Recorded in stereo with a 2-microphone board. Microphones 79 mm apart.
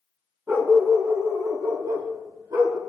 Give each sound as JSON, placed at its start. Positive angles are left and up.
{"t": 0.5, "sound": "a dog barking", "side_deg": -35, "distance_m": 1.6}